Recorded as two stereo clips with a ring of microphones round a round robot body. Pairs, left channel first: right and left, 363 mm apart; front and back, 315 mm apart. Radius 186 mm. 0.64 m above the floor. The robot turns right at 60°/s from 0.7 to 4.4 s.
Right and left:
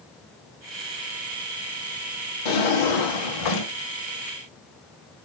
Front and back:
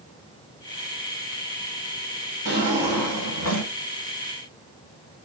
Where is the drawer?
120° right, 1.6 m; by 3.7 s 40° right, 1.6 m.